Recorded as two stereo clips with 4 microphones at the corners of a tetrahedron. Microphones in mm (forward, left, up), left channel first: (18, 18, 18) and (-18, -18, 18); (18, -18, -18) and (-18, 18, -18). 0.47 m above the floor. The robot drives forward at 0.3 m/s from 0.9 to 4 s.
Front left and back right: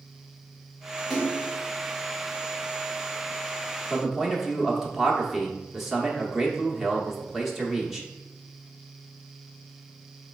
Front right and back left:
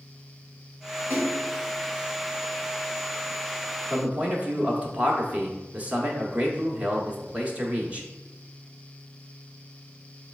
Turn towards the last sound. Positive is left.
turn(degrees=150)